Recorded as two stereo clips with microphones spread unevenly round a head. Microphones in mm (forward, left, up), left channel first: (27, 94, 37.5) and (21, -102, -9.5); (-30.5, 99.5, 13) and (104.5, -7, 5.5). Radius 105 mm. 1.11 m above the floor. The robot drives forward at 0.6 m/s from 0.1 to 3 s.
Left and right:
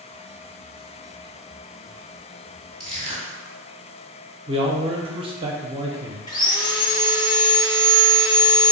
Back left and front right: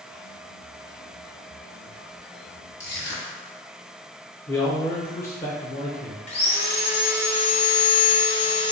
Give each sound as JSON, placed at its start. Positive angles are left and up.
{"t": 2.8, "sound": "crushing", "azimuth_deg": 165, "distance_m": 1.5}
{"t": 4.5, "sound": "a man speaking", "azimuth_deg": -140, "distance_m": 0.6}
{"t": 6.3, "sound": "sawing", "azimuth_deg": 165, "distance_m": 0.7}